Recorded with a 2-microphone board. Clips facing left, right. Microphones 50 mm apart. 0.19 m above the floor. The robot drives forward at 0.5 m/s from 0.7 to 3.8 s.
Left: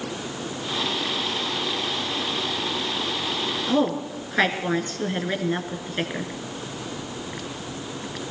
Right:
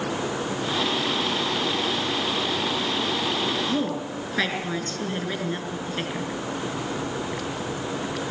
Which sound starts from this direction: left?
A woman speaking, at 3.7 s.